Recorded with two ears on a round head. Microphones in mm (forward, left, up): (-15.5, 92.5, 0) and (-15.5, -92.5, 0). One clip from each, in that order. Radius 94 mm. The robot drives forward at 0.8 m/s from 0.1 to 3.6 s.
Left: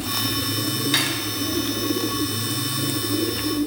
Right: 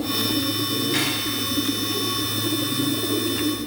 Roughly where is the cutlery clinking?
Left.